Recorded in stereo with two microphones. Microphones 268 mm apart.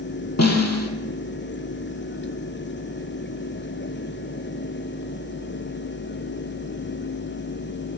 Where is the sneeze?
I don't hear a sneeze.